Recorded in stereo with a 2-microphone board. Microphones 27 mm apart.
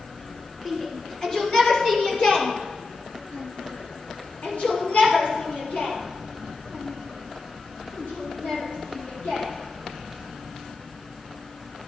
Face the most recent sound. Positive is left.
turn(degrees=80)